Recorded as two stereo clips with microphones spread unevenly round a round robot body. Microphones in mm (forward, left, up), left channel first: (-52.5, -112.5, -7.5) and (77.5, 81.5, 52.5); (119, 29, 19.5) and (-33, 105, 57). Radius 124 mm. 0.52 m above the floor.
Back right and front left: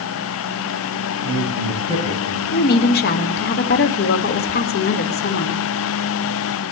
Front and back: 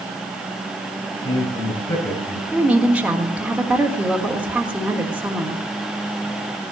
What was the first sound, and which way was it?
A man speaking, 45° left.